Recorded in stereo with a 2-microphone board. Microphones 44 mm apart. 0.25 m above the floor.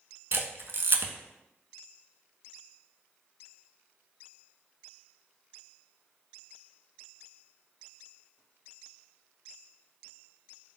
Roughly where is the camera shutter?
Right.